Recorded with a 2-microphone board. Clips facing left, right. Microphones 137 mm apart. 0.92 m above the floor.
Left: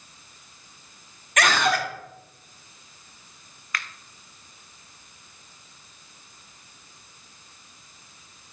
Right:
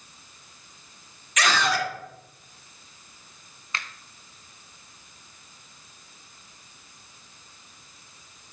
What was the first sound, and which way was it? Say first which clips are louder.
A scream: left 2 dB; 55° left (ahead or behind).